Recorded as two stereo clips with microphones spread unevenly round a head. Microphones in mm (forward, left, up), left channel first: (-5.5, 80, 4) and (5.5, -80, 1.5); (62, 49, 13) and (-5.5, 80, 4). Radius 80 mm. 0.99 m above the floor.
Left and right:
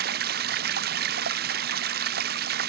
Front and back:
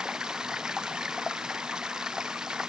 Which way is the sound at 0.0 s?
120° right.